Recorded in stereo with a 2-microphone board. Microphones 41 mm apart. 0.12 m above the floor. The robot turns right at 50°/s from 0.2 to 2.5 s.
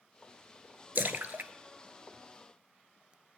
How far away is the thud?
I don't hear a thud.